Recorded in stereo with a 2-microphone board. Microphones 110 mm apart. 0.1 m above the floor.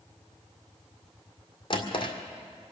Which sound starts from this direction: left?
A drawer, at 1.7 s.